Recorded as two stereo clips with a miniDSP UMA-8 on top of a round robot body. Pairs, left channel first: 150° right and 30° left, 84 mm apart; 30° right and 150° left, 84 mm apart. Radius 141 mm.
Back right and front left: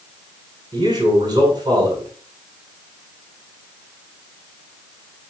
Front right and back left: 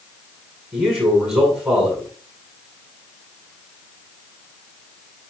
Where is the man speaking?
75° left, 6 m.